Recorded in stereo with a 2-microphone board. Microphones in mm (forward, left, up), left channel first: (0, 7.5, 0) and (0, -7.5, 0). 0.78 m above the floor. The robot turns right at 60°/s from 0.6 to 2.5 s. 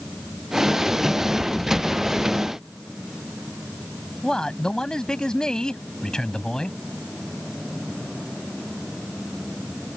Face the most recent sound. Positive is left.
turn(degrees=75)  # may be behind; listen again after turning